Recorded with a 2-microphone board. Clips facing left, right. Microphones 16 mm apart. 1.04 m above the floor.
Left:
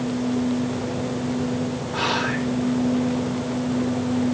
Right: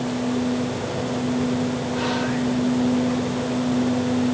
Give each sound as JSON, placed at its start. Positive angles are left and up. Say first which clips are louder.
{"t": 1.9, "sound": "whispering", "louder": "left 3 dB", "side_deg": 40, "distance_m": 0.7}